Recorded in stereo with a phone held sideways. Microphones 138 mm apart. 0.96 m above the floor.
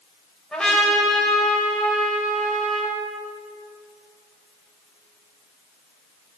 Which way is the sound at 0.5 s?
5° left (ahead or behind).